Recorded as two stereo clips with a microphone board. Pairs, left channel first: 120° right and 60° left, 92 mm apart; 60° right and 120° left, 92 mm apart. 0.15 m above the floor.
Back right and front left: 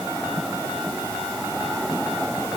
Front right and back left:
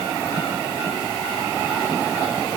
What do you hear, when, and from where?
Only background noise.